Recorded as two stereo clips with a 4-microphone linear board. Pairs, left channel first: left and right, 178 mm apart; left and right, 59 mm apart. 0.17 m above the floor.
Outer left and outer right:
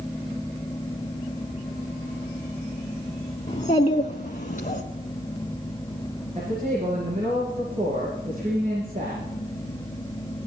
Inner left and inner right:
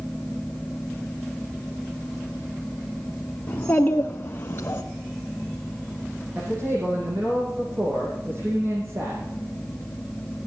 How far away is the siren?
I don't hear a siren.